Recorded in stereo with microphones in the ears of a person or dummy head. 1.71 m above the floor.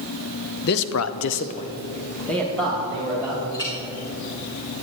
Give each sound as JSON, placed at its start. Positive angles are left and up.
{"t": 0.6, "sound": "a man speaking", "side_deg": 55, "distance_m": 1.0}
{"t": 3.5, "sound": "a clink", "side_deg": 20, "distance_m": 3.0}